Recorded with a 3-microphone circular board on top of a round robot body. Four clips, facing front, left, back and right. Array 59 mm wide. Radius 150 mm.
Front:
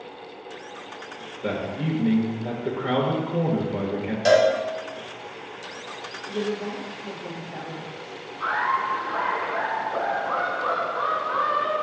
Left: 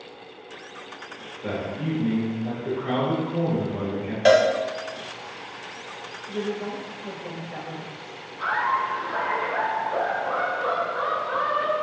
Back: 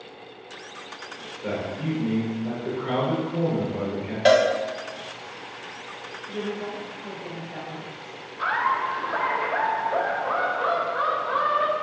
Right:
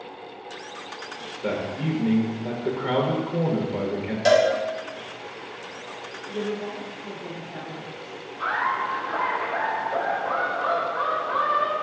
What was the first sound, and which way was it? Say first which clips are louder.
A man speaking: right 2 dB, front 1 dB; 45° right.